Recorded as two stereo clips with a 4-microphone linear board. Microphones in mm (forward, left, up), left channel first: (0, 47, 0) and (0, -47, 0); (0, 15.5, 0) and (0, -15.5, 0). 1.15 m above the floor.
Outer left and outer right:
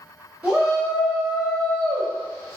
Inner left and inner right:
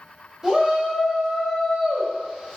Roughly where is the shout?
Centre.